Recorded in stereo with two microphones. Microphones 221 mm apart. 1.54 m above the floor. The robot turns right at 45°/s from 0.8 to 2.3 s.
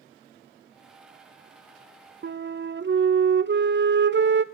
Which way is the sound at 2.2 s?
50° right (ahead or behind).